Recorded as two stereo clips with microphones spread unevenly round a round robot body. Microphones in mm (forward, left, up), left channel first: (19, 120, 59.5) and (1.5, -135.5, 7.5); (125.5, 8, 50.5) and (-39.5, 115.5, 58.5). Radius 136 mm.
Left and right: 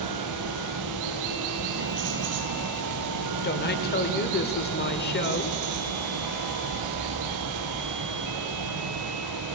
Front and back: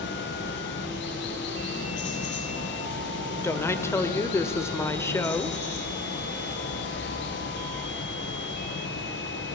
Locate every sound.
0.0 s running water: 80° right, 1.9 m
3.4 s a woman speaking: 35° left, 1.2 m